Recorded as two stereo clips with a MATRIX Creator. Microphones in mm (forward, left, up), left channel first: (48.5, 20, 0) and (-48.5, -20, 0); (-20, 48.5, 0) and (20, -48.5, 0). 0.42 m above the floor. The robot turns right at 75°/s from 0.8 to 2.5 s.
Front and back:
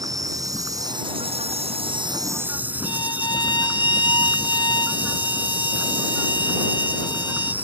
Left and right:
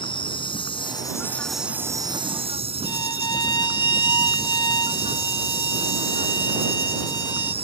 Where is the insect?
150° left; by 7.6 s 85° right.